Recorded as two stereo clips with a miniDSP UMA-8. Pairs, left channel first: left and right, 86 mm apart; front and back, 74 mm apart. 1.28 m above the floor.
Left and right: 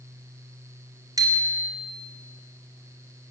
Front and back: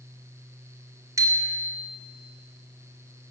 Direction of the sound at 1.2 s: 135° right.